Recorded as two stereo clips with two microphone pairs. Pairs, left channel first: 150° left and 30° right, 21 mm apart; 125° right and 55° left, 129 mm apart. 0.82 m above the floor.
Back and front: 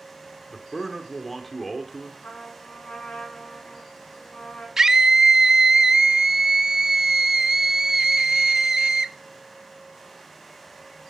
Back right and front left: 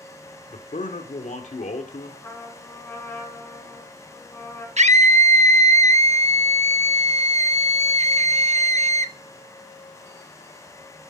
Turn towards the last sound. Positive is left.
turn(degrees=40)